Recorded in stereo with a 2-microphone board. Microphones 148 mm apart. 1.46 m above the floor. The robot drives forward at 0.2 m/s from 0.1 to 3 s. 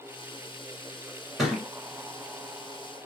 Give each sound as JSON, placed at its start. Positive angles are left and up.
{"t": 1.4, "sound": "a thud", "side_deg": 0, "distance_m": 1.5}